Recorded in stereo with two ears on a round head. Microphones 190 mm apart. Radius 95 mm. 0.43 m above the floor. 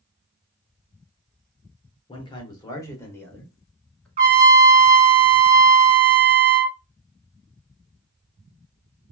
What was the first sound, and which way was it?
A man speaking, 25° left (ahead or behind).